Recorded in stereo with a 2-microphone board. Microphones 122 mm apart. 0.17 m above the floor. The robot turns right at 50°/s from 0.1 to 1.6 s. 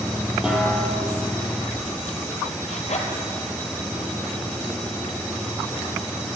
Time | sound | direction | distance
0.4 | a snare drum | 5° right (ahead or behind) | 3.5 m
2.7 | a zipper | 65° left (ahead or behind) | 2.5 m